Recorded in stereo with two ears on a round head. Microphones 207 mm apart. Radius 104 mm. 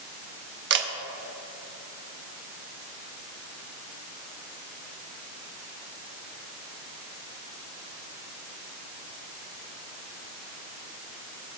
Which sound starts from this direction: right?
A camera shutter, at 0.7 s.